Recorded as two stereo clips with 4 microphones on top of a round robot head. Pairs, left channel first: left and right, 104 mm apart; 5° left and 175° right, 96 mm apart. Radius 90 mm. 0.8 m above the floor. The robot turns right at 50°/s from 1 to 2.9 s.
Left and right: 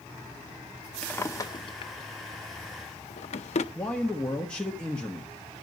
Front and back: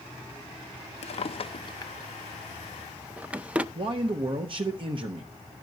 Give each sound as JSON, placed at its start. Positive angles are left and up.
{"t": 1.0, "sound": "a drawer", "azimuth_deg": 15, "distance_m": 0.6}
{"t": 3.8, "sound": "a man speaking", "azimuth_deg": 170, "distance_m": 1.1}